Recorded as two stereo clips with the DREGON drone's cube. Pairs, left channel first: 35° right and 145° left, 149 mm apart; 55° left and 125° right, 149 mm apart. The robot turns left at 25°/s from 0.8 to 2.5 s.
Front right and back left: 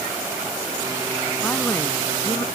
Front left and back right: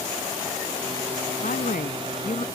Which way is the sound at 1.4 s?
50° left.